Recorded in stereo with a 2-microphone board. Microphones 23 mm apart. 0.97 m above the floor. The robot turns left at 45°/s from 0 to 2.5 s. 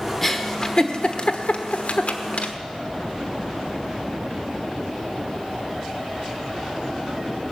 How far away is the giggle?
About 1.1 m.